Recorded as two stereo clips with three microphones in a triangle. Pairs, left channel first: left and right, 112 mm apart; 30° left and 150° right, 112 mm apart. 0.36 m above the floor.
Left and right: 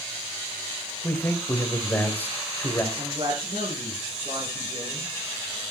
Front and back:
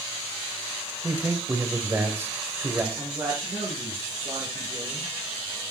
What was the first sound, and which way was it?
A man speaking, 150° left.